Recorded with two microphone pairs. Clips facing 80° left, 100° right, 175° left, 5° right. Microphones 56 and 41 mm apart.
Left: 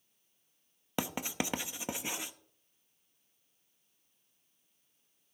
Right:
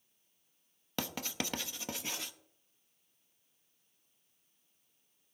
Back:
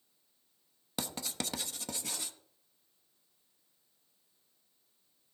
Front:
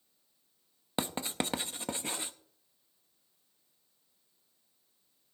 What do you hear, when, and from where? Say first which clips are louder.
1.0 s writing: left 3 dB, front 5 dB; 25° left, 0.8 m